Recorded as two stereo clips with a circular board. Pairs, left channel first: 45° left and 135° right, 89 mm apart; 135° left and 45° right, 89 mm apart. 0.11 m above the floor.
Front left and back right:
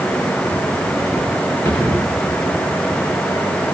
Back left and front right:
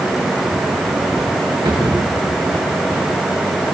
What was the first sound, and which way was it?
A drawer, 15° right.